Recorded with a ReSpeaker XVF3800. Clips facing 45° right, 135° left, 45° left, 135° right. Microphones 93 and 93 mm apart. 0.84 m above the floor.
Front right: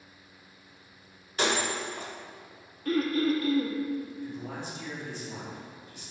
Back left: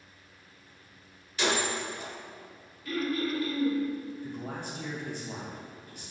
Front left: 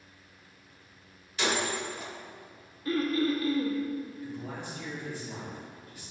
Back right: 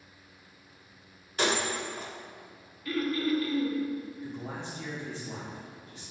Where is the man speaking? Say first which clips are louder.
Even, even; 165° left, 2 m.